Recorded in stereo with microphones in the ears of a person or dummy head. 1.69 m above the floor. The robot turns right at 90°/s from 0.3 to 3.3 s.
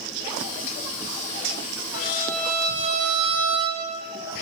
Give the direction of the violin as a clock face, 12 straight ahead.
8 o'clock.